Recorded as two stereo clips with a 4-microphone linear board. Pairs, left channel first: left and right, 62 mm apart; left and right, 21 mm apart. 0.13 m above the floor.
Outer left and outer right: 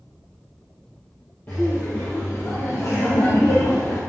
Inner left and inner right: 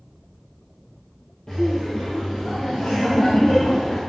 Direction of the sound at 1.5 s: 35° left (ahead or behind).